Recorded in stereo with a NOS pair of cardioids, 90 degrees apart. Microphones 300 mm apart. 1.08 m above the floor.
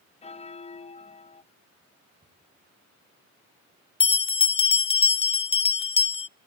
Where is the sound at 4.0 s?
20° left, 0.5 m.